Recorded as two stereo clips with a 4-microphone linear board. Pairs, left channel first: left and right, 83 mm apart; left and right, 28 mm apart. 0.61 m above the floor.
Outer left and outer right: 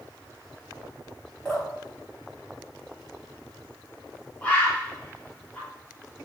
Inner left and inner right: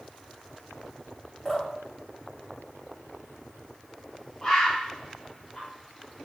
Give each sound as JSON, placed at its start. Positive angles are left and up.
{"t": 1.4, "sound": "dripping", "side_deg": 20, "distance_m": 1.8}
{"t": 4.4, "sound": "a bird", "side_deg": 15, "distance_m": 0.7}